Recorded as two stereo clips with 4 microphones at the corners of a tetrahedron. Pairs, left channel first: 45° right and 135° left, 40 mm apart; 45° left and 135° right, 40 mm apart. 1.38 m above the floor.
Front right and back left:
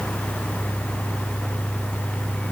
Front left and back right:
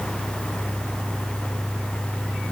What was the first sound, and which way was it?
Only background noise.